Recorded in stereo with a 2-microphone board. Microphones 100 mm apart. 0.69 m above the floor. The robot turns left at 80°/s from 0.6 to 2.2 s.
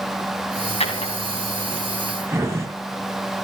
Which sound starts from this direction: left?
A drawer, at 0.8 s.